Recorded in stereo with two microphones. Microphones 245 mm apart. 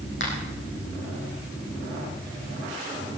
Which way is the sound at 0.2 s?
50° left (ahead or behind).